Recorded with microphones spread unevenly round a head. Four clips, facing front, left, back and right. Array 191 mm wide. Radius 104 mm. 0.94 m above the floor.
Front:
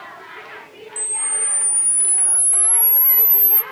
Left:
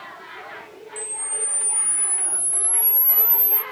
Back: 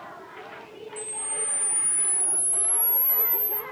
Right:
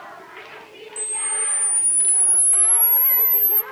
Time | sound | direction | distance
1.0 | a camera shutter | 15° right | 0.6 m